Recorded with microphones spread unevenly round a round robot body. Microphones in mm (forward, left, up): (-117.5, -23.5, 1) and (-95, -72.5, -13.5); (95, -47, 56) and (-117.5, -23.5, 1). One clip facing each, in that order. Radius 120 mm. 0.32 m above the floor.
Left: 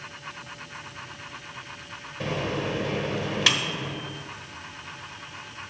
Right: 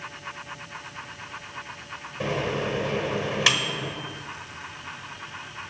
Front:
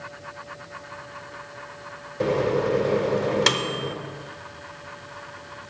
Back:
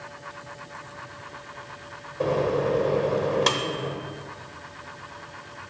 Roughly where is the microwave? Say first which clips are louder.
Right 2 dB, front 1 dB; ahead right.